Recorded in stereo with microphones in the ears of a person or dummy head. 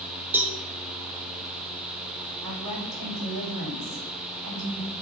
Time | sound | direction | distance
0.3 | a cowbell | 10° right (ahead or behind) | 0.6 m
2.4 | a woman speaking | 70° right (ahead or behind) | 3.5 m